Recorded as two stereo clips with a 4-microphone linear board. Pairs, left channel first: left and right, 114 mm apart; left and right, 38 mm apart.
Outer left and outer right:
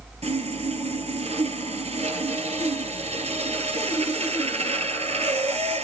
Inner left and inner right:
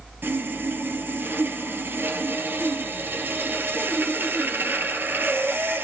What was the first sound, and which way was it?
Sawing, 70° right (ahead or behind).